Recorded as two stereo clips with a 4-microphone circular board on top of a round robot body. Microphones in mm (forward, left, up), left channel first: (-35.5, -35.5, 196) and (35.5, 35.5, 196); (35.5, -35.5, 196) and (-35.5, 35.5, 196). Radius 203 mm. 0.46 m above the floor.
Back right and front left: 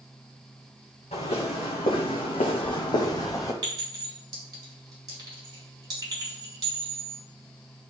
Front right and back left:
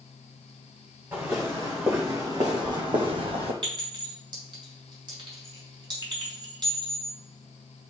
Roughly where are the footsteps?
Behind right.